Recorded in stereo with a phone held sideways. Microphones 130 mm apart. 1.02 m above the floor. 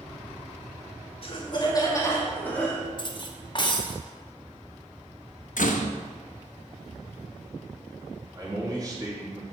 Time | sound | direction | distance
1.2 | laughter | 45° left (ahead or behind) | 1.6 m
3.0 | cutlery clinking | 35° left (ahead or behind) | 0.8 m
5.6 | a door slam | 85° left | 0.7 m
8.3 | a man speaking | 30° right (ahead or behind) | 2.5 m